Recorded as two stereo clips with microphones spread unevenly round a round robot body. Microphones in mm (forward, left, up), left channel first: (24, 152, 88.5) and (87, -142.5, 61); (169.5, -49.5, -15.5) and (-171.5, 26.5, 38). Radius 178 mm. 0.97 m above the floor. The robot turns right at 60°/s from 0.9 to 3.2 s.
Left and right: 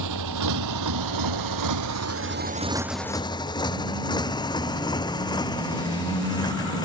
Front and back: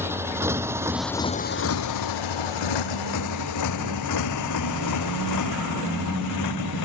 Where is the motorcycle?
110° right; by 6.9 s 25° left.